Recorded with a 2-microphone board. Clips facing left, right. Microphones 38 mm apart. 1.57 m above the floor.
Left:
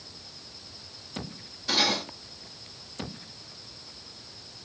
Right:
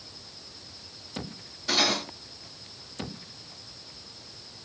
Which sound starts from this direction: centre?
Cutlery clinking, at 1.7 s.